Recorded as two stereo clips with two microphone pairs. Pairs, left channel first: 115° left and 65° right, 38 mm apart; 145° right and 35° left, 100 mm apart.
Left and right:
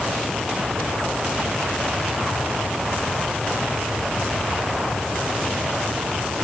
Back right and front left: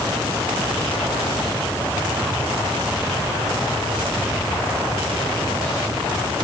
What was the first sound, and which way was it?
Only background noise.